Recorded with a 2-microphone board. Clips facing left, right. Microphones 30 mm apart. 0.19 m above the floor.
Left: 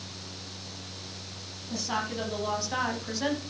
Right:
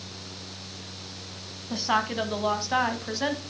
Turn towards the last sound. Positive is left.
turn(degrees=-20)  # may be behind; listen again after turning